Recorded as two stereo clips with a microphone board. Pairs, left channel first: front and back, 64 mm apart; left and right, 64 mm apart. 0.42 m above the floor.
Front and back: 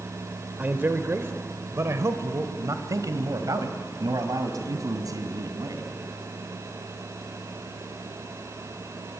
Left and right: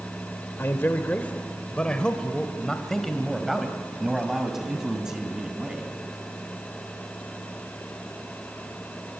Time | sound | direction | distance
0.6 | a man speaking | 130° left | 1.4 m